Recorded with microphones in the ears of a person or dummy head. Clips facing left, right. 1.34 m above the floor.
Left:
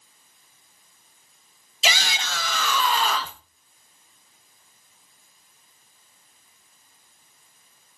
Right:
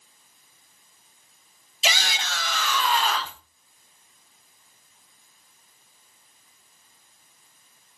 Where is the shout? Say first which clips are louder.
Left 1 dB; 70° left (ahead or behind), 1.6 m; by 3.4 s 80° left, 1.6 m.